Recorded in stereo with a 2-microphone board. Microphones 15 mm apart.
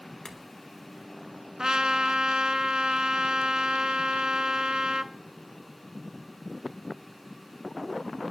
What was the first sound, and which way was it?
A clink, 45° left (ahead or behind).